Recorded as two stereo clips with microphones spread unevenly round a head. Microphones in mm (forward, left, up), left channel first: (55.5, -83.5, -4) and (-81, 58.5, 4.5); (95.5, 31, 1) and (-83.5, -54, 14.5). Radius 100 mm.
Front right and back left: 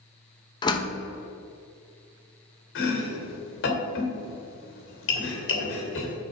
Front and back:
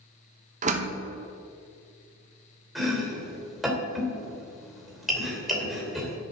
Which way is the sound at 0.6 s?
115° right.